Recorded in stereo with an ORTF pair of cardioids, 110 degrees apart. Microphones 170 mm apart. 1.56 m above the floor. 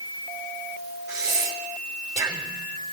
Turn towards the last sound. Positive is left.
turn(degrees=-20)